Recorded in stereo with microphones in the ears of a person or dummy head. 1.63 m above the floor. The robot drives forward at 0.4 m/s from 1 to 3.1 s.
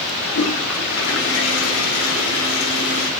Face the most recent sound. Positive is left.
turn(degrees=70)  # may be behind; listen again after turning